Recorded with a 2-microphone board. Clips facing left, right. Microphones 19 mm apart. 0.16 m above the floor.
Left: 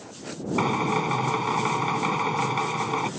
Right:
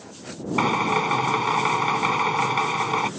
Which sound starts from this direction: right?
A drill, at 0.6 s.